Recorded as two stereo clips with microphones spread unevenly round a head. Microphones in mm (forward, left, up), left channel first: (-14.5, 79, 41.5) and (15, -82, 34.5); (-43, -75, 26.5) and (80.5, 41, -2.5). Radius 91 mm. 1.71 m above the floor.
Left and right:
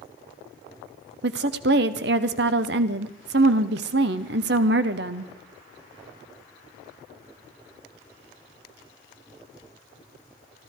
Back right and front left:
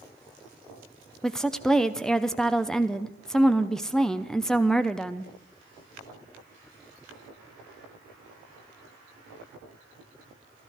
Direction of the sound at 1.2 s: 55° right.